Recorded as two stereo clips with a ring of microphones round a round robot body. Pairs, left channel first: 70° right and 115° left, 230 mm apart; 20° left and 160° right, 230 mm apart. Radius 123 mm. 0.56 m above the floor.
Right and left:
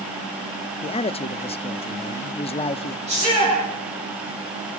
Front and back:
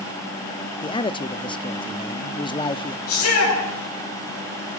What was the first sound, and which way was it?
A man speaking, 25° right.